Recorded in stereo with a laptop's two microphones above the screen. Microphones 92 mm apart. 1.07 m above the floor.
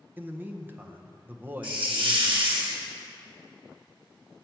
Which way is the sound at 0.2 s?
20° right (ahead or behind).